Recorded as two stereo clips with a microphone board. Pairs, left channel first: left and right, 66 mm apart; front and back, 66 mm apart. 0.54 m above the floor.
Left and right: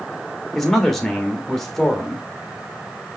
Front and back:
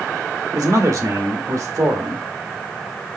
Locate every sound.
0.6 s a man speaking: 175° left, 1.4 m